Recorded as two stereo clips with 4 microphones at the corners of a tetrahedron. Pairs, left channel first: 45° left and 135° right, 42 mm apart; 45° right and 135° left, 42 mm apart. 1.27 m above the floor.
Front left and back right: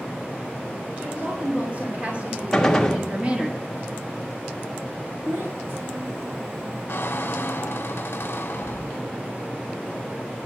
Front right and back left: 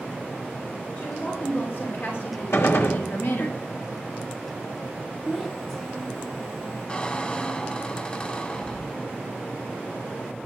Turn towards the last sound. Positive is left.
turn(degrees=15)